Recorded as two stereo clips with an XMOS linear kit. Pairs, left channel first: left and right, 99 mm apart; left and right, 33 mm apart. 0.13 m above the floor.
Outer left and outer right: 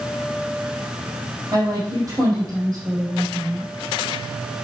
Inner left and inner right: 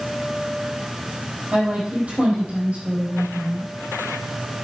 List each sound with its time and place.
1.5 s a woman speaking: 30° right (ahead or behind), 4.5 m